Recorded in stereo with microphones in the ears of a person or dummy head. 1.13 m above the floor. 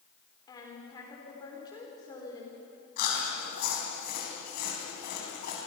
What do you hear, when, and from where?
0.5 s a woman speaking: 20° left (ahead or behind), 3.5 m
3.0 s chewing: 50° left (ahead or behind), 4.5 m